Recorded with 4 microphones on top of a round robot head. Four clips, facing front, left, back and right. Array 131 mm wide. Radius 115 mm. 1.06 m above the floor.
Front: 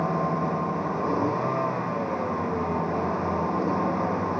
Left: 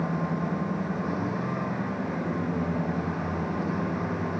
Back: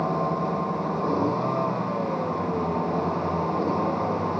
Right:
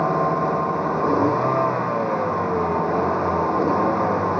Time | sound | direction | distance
0.0 | a vehicle | 95° right | ?